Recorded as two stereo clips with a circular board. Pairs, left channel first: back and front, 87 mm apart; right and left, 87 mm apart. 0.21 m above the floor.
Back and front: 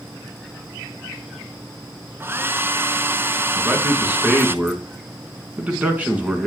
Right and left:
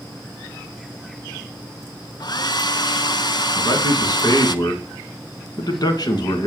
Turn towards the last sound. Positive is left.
turn(degrees=-70)